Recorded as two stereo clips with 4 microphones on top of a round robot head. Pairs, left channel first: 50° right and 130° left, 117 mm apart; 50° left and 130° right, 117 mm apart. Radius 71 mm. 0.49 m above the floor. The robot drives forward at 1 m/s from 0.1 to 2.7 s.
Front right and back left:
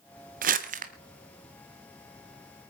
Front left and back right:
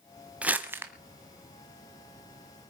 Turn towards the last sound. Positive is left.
turn(degrees=170)